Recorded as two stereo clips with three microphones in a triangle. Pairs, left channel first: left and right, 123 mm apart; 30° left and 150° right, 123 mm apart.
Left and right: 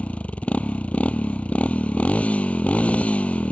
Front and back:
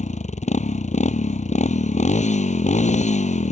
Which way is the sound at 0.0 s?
10° left.